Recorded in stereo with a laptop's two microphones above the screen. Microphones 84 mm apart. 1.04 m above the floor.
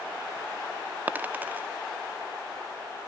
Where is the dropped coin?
20° right (ahead or behind), 0.6 m.